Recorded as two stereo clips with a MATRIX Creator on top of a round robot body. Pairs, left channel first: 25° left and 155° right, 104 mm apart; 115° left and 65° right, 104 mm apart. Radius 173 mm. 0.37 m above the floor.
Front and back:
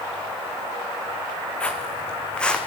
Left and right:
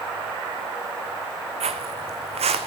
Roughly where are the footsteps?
Ahead right.